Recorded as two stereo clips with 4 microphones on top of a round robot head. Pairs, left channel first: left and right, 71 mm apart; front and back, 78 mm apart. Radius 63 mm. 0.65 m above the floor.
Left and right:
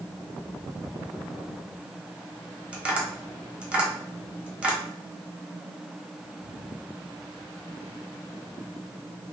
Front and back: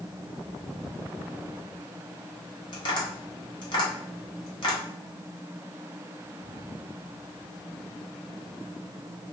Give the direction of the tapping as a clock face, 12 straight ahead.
12 o'clock.